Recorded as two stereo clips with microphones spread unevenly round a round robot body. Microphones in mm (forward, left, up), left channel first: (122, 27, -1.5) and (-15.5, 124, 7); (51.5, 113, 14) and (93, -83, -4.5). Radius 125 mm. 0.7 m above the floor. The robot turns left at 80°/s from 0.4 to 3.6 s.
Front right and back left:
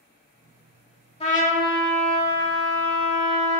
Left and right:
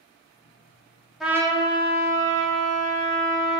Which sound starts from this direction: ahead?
A trumpet, at 1.2 s.